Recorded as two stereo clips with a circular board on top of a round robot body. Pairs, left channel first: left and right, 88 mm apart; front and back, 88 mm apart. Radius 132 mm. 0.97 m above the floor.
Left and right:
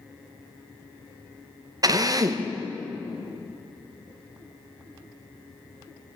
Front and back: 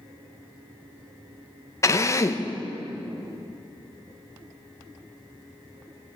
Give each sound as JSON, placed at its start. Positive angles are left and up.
{"t": 1.8, "sound": "a drill", "azimuth_deg": -50, "distance_m": 1.4}